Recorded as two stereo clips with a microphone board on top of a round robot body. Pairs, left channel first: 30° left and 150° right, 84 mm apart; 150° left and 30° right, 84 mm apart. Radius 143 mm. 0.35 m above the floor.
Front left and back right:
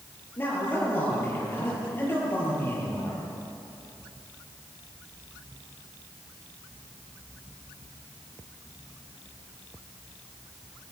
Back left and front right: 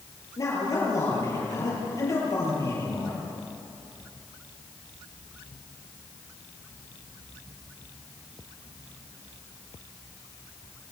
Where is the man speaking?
95° left, 9.5 m.